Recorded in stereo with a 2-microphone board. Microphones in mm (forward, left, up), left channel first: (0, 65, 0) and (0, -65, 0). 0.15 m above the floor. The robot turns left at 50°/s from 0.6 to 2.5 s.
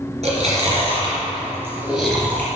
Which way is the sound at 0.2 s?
55° right (ahead or behind).